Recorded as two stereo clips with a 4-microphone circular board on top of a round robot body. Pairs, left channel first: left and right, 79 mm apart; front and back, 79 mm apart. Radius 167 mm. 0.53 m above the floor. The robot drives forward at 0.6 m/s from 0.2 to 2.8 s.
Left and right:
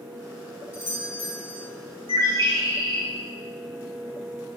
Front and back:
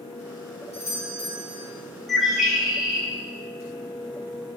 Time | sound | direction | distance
0.7 | a doorbell | 145° left | 3 m
2.1 | a bird | 90° right | 3.5 m